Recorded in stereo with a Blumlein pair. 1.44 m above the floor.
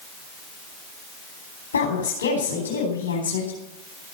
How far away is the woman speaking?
About 4 m.